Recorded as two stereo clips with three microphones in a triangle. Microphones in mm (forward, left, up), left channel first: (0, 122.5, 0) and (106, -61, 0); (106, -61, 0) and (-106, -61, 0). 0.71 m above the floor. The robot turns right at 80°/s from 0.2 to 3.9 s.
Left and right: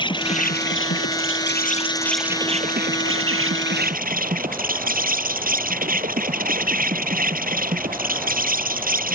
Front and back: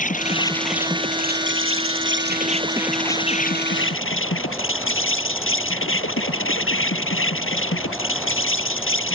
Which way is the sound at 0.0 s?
50° left.